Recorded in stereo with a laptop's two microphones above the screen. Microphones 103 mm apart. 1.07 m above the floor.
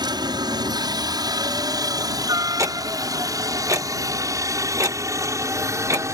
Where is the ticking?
30° right (ahead or behind).